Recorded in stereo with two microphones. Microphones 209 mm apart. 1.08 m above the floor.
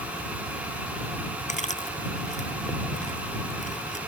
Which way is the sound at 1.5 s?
40° left (ahead or behind).